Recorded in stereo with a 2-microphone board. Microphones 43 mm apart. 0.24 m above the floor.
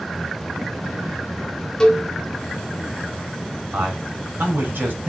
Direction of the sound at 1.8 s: 15° left (ahead or behind).